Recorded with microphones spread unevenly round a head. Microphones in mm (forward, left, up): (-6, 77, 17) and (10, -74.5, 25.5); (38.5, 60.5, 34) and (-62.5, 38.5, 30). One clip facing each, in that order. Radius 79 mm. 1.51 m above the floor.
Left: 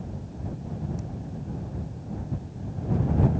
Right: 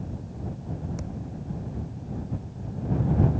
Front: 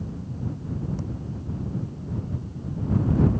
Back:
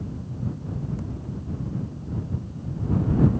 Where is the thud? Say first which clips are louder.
Right 1 dB, front 1 dB; 60° right.